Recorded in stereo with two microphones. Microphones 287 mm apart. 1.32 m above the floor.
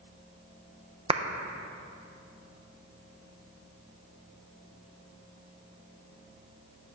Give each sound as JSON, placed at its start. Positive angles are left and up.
{"t": 1.1, "sound": "a clap", "side_deg": -20, "distance_m": 0.6}